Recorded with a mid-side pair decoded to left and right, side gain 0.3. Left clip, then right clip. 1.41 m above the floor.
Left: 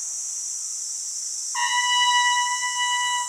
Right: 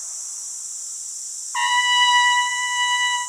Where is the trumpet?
55° right, 1.4 m.